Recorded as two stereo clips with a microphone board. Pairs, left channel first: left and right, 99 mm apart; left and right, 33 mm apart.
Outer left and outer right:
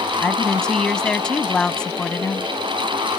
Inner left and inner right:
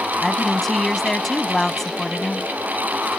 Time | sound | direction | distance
0.2 | a woman speaking | 10° left (ahead or behind) | ?